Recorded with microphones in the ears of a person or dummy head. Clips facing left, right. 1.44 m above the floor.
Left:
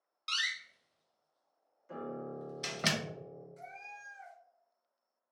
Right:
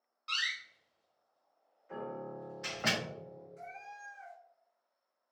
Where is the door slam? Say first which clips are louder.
Even; 50° left (ahead or behind), 0.7 m.